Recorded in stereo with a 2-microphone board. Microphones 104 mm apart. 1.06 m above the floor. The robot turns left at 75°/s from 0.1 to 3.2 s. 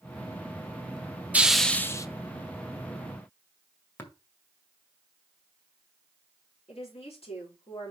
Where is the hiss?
165° right, 0.7 m; by 2.1 s 145° left, 0.7 m.